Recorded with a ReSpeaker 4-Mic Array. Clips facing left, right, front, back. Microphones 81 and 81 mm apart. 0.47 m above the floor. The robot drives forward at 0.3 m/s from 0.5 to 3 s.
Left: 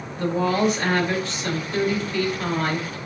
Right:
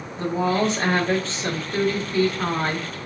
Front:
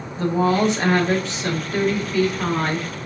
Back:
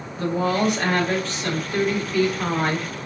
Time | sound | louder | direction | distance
0.2 | a woman speaking | left 1 dB, front 3 dB | 45° right | 1.3 m